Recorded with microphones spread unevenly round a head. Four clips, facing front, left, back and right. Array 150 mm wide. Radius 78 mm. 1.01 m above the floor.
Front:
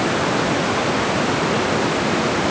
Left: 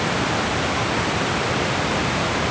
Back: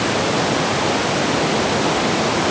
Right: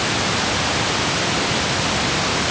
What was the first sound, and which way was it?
Only background noise.